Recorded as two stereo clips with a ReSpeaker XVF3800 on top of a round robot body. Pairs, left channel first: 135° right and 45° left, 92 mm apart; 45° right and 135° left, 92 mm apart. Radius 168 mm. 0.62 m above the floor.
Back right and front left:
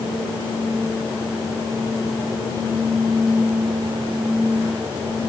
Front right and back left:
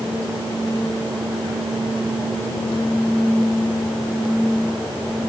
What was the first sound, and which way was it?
Only background noise.